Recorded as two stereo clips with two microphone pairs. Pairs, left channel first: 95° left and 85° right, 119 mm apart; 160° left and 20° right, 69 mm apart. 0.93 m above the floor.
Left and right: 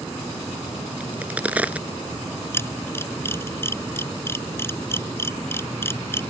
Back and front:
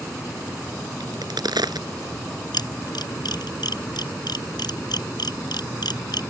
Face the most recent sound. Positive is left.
turn(degrees=165)